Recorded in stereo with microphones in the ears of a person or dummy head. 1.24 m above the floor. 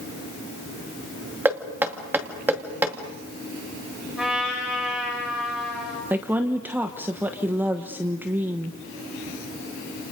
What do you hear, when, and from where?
1.4 s knocking: 10° right (ahead or behind), 2.5 m
4.2 s a trumpet: 5° right (ahead or behind), 7 m
6.1 s a woman speaking: 10° right (ahead or behind), 1.2 m